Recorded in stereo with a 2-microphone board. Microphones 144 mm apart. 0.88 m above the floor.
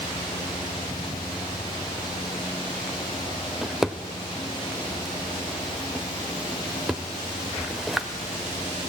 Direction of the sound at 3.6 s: Centre (ahead or behind).